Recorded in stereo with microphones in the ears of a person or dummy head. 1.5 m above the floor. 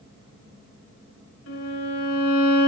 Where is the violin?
85° left, 2.5 m.